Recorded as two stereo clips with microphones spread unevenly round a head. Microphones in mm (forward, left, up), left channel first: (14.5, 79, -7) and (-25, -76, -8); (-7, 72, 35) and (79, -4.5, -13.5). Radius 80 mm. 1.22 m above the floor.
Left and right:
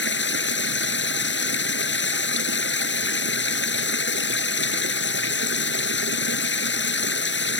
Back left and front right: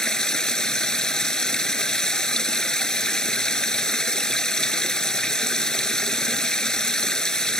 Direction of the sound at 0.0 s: 60° left.